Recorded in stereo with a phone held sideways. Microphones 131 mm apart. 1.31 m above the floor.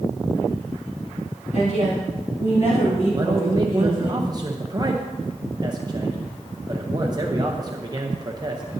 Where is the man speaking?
30° right (ahead or behind), 0.7 m.